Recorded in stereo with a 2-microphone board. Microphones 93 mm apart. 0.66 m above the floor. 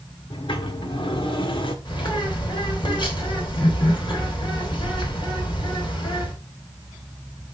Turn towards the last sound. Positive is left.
turn(degrees=60)  # may be behind; listen again after turning